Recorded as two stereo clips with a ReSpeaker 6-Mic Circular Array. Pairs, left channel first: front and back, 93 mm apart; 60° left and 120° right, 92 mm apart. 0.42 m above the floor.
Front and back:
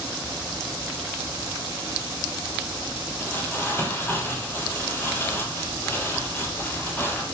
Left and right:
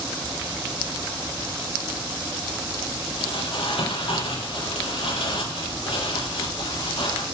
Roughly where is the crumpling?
Ahead left.